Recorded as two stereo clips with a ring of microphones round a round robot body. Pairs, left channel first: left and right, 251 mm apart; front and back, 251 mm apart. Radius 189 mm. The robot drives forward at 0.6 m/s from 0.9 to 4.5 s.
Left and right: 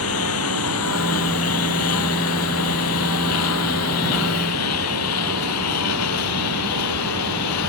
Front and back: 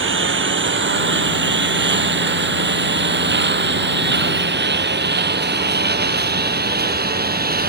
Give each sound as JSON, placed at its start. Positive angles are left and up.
{"t": 0.0, "sound": "a lawn mower", "azimuth_deg": 140}